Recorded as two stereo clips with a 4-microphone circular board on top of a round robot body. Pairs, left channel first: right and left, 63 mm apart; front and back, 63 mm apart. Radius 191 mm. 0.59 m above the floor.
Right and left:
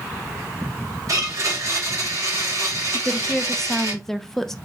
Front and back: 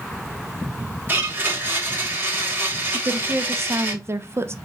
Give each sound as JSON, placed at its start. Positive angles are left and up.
{"t": 1.1, "sound": "a blender", "azimuth_deg": 120, "distance_m": 2.5}
{"t": 2.9, "sound": "a woman speaking", "azimuth_deg": -170, "distance_m": 0.8}